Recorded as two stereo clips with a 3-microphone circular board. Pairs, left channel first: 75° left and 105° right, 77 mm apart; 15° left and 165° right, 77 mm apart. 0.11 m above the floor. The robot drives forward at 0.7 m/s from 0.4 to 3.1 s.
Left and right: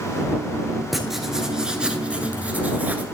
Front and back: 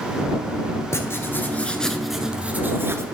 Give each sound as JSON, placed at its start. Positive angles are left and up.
{"t": 0.9, "sound": "writing", "azimuth_deg": -15, "distance_m": 1.3}